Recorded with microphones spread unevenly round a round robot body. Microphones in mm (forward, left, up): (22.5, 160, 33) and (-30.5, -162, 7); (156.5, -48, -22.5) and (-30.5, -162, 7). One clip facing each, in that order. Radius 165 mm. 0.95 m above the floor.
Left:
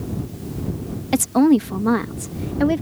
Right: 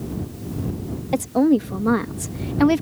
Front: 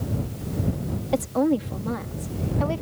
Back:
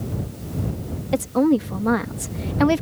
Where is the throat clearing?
I don't hear throat clearing.